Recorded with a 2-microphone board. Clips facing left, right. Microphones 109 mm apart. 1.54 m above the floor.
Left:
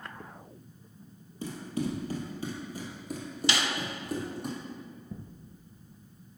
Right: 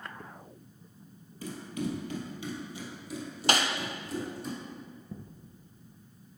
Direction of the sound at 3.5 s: 45° right (ahead or behind).